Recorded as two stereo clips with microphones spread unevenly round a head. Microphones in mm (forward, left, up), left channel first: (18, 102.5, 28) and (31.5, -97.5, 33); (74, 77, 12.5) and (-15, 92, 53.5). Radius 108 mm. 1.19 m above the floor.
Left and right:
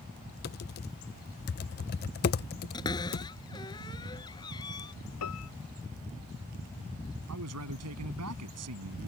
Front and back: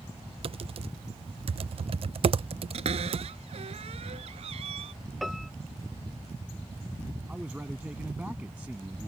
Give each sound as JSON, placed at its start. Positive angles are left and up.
{"t": 0.4, "sound": "typing on a keyboard", "azimuth_deg": 140}
{"t": 2.7, "sound": "a cupboard door", "azimuth_deg": 165}
{"t": 5.2, "sound": "a piano", "azimuth_deg": 85}
{"t": 7.3, "sound": "a man speaking", "azimuth_deg": -110}